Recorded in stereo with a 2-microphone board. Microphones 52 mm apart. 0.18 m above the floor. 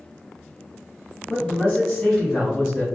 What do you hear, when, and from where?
1.3 s a man speaking: 15° left (ahead or behind), 1.4 m; by 2.9 s 15° right (ahead or behind), 1.5 m